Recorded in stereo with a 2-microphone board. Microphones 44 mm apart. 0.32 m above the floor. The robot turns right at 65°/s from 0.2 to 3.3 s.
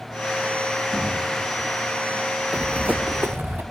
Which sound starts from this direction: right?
Running footsteps, at 2.5 s.